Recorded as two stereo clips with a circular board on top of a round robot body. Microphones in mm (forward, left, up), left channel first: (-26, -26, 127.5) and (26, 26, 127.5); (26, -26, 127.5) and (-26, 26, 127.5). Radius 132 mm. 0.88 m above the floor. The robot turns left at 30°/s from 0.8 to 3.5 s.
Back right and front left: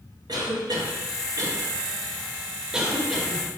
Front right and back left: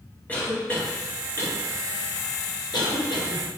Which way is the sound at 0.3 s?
25° left.